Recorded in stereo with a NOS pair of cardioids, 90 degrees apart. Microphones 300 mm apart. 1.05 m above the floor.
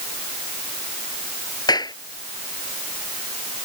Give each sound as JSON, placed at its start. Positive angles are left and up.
{"t": 1.7, "sound": "a clap", "azimuth_deg": 15}